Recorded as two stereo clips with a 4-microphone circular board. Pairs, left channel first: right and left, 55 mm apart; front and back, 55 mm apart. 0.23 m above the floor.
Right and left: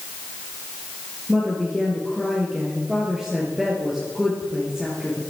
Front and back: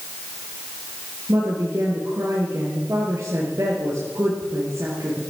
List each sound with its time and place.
1.3 s a woman speaking: 170° left, 4 m